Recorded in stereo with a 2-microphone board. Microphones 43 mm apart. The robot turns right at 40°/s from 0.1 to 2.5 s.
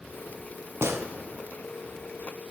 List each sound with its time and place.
0.8 s a gunshot: 70° right (ahead or behind), 0.7 m; by 1.1 s 60° right (ahead or behind), 0.7 m